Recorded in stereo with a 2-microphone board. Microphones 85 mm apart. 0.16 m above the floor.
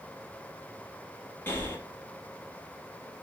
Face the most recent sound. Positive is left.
turn(degrees=30)  # may be behind; listen again after turning